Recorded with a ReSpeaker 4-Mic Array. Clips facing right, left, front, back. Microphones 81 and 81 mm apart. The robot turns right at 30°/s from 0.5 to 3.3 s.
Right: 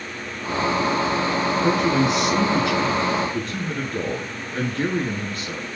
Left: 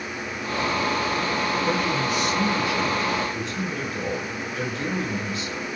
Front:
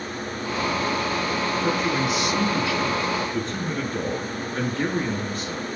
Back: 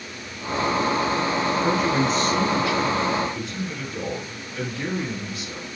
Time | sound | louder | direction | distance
1.6 | a man speaking | right 5 dB, back 2 dB | 95° right | 7.5 m